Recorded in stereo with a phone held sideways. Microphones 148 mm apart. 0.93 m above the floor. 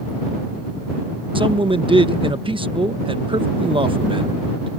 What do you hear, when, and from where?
1.4 s a man speaking: 35° right (ahead or behind)